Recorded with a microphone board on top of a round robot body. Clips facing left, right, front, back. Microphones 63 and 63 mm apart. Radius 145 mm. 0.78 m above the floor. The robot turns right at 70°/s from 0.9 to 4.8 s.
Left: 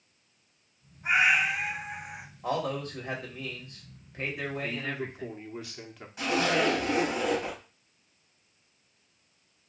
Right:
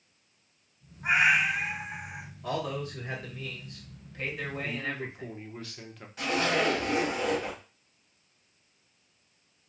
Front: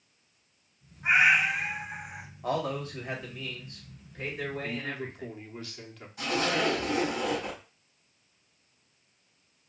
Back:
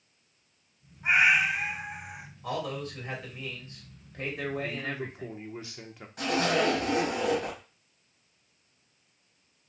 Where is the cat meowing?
75° right, 3.5 m; by 2.2 s 10° left, 3.5 m.